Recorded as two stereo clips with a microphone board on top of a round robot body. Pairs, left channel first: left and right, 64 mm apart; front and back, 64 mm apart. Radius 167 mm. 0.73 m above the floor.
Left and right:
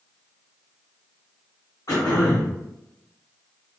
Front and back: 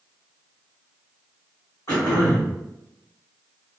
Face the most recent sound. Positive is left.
turn(degrees=45)